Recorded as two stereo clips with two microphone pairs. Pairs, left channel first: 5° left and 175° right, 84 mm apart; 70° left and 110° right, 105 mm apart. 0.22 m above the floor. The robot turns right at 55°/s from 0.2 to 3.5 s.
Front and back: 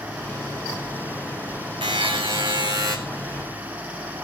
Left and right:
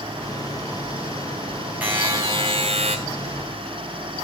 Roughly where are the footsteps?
I don't hear footsteps.